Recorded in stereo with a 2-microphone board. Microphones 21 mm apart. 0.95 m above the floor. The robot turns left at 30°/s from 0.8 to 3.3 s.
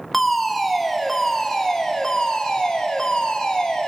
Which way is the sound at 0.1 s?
165° left.